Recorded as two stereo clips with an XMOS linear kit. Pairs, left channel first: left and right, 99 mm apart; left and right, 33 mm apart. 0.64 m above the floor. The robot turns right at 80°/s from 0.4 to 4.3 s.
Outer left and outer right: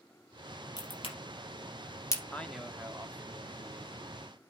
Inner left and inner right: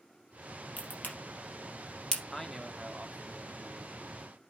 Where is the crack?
40° left (ahead or behind), 3 m; by 2.2 s 25° left (ahead or behind), 3 m.